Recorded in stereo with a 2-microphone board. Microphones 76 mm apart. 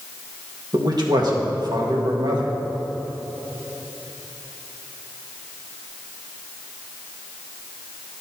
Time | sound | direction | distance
0.7 | a man speaking | 55° right (ahead or behind) | 1.4 m